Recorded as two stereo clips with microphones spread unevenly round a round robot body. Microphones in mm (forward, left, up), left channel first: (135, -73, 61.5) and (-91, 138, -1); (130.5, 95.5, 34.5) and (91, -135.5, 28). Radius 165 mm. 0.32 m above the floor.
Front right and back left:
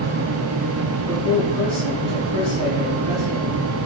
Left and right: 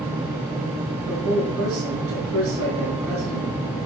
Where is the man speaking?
135° right, 4.5 m.